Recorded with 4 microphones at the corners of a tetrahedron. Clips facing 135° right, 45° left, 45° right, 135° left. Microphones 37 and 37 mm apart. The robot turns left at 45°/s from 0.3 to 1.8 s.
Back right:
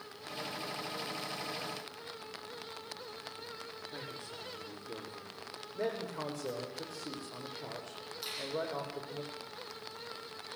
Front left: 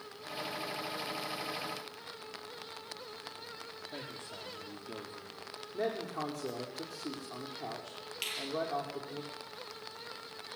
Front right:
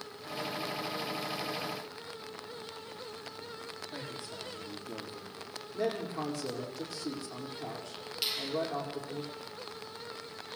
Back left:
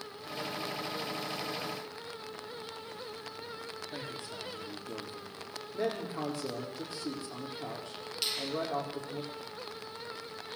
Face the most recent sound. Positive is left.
turn(degrees=35)